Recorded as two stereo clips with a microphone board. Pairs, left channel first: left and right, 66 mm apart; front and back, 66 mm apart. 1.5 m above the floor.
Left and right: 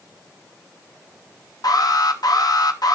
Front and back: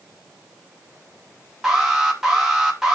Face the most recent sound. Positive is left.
turn(degrees=95)